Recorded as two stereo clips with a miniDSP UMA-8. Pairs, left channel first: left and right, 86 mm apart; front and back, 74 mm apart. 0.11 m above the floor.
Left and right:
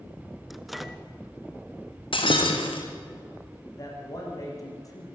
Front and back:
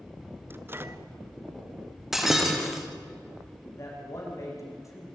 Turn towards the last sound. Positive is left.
turn(degrees=45)